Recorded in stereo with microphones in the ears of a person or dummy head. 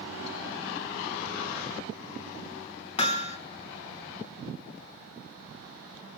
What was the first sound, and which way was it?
Hammering, 35° left (ahead or behind).